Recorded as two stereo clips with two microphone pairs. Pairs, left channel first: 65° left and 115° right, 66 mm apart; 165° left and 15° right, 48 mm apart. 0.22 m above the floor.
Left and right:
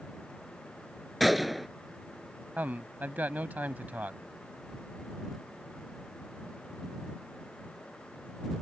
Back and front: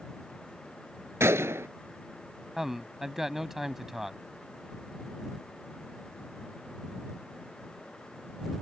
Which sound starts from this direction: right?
A man speaking, at 2.6 s.